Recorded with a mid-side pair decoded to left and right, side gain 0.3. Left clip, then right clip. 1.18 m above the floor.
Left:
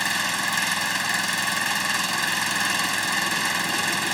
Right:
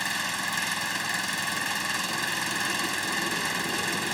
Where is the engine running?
50° left.